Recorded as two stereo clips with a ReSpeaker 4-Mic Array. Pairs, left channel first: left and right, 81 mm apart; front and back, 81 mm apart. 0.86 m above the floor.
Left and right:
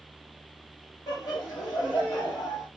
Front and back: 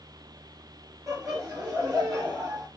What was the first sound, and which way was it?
Laughter, 135° left.